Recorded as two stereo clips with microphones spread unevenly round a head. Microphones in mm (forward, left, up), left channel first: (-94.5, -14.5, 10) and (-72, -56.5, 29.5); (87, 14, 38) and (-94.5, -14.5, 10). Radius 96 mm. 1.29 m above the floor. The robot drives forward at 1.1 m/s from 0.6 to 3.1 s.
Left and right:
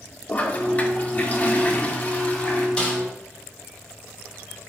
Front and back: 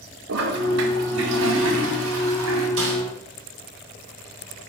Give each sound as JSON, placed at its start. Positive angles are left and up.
{"t": 0.3, "sound": "a toilet flushing", "azimuth_deg": -175, "distance_m": 1.5}
{"t": 2.8, "sound": "a snare drum", "azimuth_deg": -175, "distance_m": 3.5}